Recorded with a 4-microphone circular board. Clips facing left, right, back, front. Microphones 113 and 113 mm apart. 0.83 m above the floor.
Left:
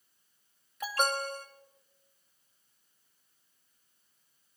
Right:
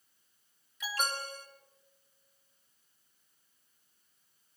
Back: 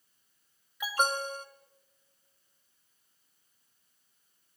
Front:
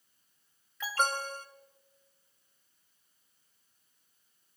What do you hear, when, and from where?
0.8 s an alarm: 105° left, 2.0 m